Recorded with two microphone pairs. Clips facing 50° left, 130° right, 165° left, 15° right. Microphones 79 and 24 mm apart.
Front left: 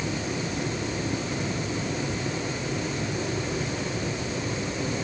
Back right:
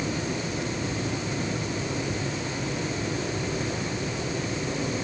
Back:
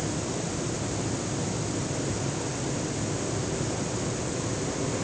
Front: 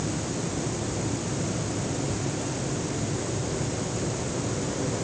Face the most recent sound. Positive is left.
No sound to turn to.